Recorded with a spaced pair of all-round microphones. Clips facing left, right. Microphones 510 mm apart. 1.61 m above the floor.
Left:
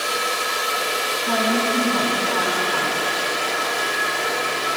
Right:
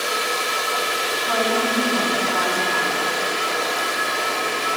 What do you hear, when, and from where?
1.3 s a woman speaking: 60° left (ahead or behind), 10 m